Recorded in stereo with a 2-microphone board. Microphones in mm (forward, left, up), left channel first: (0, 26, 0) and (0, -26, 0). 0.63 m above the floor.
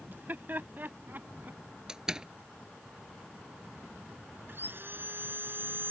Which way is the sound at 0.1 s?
40° right (ahead or behind).